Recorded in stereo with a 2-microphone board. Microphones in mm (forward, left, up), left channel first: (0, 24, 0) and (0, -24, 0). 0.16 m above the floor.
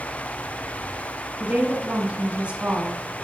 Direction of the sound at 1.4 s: 25° right (ahead or behind).